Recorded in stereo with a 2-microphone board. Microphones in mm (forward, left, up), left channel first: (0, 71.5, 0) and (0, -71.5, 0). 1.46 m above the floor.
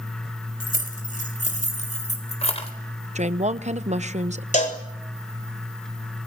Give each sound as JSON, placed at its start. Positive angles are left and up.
{"t": 0.6, "sound": "keys jangling", "side_deg": 70, "distance_m": 5.5}
{"t": 3.1, "sound": "a woman speaking", "side_deg": -55, "distance_m": 0.9}
{"t": 4.5, "sound": "a cowbell", "side_deg": 55, "distance_m": 3.5}